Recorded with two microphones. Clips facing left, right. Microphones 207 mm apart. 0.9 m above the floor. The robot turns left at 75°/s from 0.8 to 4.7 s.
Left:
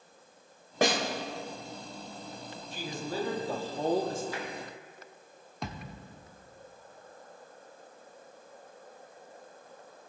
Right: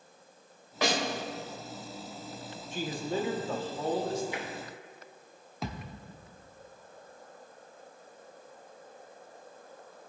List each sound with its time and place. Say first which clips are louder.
0.8 s a snare drum: left 3 dB; 50° left (ahead or behind), 1.6 m; by 1.0 s 65° left (ahead or behind), 1.6 m
2.7 s a man speaking: right 3 dB; 125° right, 1.2 m; by 4.2 s 120° left, 1.2 m
4.3 s tapping: even; 20° right (ahead or behind), 1.3 m; by 4.5 s 10° right (ahead or behind), 1.3 m
5.6 s a thud: right 2 dB; centre (ahead or behind), 0.8 m